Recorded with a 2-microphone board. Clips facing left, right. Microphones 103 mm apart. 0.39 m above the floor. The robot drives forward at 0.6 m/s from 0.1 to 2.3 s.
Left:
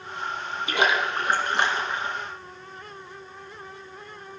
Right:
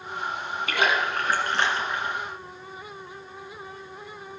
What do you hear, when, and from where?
0.7 s a splash: 20° left (ahead or behind), 2.5 m; by 2.2 s 15° left (ahead or behind), 3 m